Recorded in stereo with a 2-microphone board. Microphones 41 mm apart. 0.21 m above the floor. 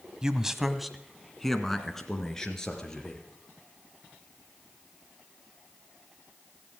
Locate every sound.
0.2 s a man speaking: 15° right (ahead or behind), 1.0 m; by 3.2 s 15° left (ahead or behind), 3.5 m